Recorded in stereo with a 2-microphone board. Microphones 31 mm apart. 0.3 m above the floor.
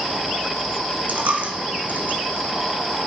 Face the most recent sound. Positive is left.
turn(degrees=-60)  # may be behind; listen again after turning